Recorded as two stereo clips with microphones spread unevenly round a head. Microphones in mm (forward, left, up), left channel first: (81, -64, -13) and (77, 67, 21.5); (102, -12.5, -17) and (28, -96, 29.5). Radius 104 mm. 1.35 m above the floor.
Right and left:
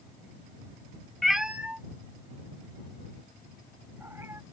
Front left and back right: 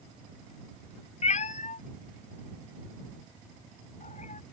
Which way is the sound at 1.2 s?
20° left.